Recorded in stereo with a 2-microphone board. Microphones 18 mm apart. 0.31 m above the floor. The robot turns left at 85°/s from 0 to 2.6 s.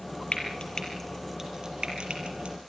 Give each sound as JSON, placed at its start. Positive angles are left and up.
{"t": 0.3, "sound": "frying", "side_deg": 75, "distance_m": 5.0}